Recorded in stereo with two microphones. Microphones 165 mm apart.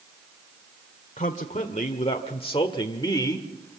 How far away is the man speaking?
About 1.5 m.